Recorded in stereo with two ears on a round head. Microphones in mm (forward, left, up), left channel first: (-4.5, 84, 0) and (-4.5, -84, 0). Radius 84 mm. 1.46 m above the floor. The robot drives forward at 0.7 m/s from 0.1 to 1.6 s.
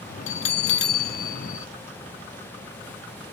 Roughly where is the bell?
Left.